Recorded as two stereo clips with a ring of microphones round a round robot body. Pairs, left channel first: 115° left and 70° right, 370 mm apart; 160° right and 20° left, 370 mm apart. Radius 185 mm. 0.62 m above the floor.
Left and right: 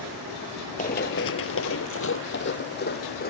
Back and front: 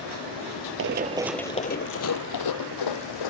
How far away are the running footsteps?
About 0.7 m.